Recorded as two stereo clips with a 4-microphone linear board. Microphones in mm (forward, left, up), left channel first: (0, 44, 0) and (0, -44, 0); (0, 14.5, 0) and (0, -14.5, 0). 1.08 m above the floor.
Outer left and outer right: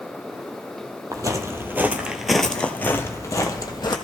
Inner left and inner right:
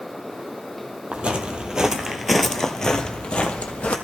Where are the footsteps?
40° right (ahead or behind), 1.4 m; by 4.0 s 50° left (ahead or behind), 1.6 m.